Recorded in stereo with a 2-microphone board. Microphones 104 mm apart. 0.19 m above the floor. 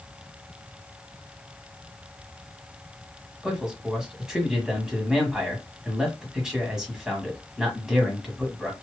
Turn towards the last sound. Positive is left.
turn(degrees=-5)  # may be behind; listen again after turning